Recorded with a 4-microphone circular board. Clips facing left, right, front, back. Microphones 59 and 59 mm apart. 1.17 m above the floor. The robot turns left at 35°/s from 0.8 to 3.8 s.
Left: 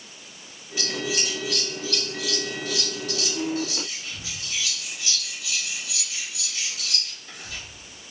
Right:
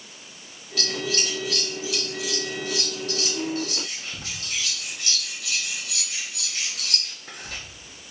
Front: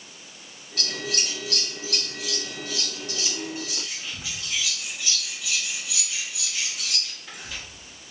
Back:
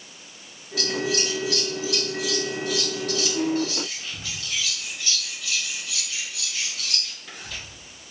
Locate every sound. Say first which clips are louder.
0.8 s scissors: even, back 6 dB; 25° left, 0.9 m; by 7.6 s 80° right, 0.9 m